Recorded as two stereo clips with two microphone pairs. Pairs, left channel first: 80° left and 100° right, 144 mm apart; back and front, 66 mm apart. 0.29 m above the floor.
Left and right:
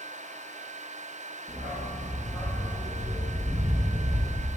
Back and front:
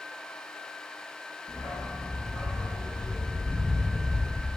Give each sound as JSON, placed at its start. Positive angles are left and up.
{"t": 1.5, "sound": "a dog barking", "azimuth_deg": 175, "distance_m": 8.0}